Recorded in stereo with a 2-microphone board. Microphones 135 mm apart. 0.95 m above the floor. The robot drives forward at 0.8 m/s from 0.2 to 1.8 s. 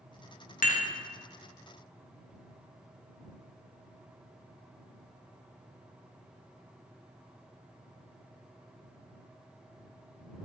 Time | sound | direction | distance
0.6 | dishes clattering | 85° left | 0.7 m